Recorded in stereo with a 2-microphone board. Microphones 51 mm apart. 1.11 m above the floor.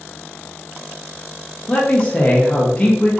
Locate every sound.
1.7 s a man speaking: 20° left (ahead or behind), 0.5 m